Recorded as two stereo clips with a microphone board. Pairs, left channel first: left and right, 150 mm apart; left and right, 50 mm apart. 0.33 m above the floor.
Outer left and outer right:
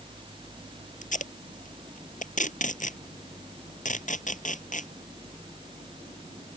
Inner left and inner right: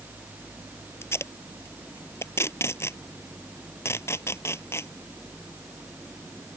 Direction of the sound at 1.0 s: 60° left (ahead or behind).